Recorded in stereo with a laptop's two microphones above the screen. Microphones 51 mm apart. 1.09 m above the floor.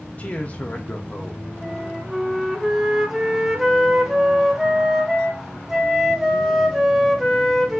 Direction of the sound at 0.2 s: 35° left (ahead or behind).